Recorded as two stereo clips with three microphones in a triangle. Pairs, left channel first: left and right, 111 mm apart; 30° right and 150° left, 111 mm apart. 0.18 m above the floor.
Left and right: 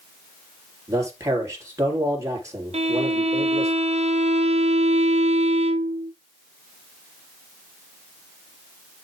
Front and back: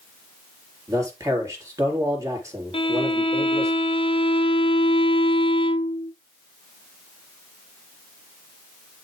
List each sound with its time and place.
0.9 s a man speaking: 150° right, 4 m
2.7 s a violin: 70° right, 0.8 m